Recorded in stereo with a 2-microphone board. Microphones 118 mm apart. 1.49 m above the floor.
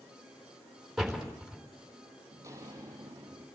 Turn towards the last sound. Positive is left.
turn(degrees=-30)  # may be behind; listen again after turning